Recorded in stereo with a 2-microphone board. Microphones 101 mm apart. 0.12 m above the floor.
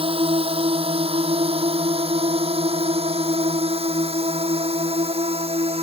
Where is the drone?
65° right (ahead or behind); by 5.8 s 75° right (ahead or behind).